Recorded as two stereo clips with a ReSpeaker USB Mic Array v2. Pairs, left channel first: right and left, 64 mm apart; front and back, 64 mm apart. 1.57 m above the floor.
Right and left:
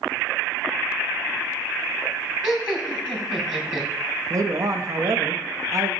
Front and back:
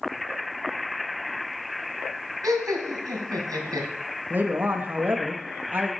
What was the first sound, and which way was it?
Laughter, 170° left.